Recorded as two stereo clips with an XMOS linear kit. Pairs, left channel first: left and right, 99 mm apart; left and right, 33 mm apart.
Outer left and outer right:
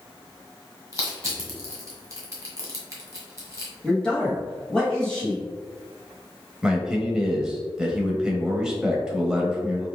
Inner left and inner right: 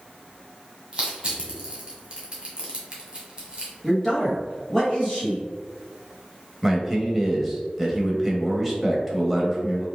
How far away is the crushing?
About 1.5 m.